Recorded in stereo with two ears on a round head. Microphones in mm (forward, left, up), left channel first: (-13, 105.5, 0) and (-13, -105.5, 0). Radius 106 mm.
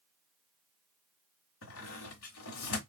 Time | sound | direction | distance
1.6 | a squeak | 60° left (ahead or behind) | 1.4 m